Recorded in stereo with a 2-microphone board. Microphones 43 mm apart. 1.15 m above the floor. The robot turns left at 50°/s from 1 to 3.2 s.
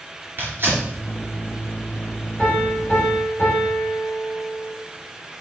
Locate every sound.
0.4 s tearing paper: 50° right (ahead or behind), 3 m
2.4 s a piano: 165° left, 4 m; by 4.8 s 125° left, 4 m